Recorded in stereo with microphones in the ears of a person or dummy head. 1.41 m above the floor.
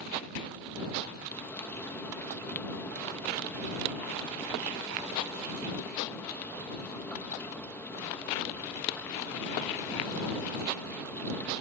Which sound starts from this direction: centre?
Frying, at 1.3 s.